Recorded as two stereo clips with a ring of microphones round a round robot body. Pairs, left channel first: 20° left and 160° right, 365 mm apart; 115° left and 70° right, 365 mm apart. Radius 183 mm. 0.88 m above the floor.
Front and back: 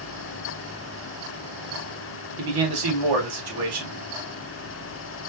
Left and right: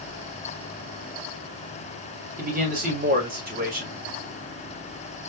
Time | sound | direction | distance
2.4 | a man speaking | 135° right | 3 m